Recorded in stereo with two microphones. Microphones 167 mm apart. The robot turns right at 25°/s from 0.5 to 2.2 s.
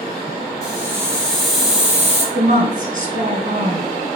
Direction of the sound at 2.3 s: 55° right (ahead or behind).